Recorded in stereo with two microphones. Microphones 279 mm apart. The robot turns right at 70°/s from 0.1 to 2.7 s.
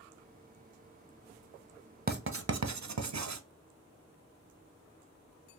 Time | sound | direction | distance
2.1 | writing | 35° right (ahead or behind) | 0.5 m